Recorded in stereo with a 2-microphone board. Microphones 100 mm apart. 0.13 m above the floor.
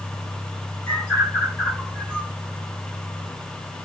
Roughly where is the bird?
Centre.